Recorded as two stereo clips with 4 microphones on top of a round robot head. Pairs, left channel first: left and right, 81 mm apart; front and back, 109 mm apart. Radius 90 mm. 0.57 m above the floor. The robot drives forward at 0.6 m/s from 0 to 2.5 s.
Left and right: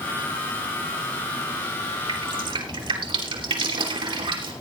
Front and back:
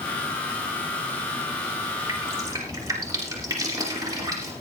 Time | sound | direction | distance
2.1 | dripping | 110° right | 3 m